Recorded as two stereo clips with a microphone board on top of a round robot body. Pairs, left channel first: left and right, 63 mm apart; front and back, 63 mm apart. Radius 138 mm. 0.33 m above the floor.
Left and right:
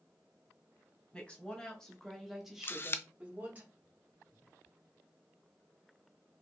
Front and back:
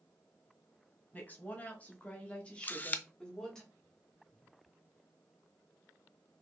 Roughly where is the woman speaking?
Ahead left.